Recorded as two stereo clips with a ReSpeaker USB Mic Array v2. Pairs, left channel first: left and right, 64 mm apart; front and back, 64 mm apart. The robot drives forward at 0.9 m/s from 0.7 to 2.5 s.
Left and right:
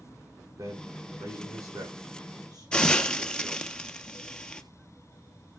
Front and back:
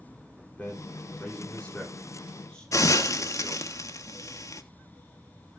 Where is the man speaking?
70° right, 9.5 m; by 3.7 s 80° right, 9 m.